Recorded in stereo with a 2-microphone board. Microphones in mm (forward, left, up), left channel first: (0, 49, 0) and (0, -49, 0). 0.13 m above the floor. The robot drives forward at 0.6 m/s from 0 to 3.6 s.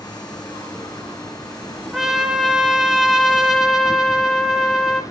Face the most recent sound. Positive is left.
turn(degrees=-5)  # may be behind; listen again after turning